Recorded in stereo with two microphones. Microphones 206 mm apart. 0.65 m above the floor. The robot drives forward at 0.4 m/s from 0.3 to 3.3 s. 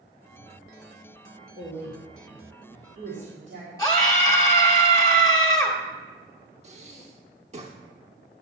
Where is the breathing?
30° right (ahead or behind), 1.0 m.